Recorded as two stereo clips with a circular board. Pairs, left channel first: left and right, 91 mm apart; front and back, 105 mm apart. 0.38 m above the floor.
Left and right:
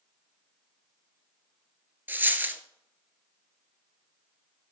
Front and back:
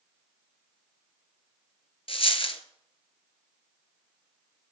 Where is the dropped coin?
20° right, 0.8 m.